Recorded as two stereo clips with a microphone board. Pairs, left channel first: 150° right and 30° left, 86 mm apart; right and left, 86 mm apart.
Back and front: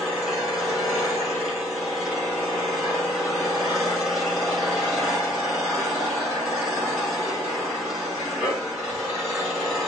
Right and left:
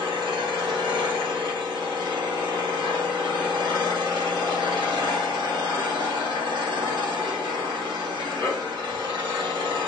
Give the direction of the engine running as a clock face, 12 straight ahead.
8 o'clock.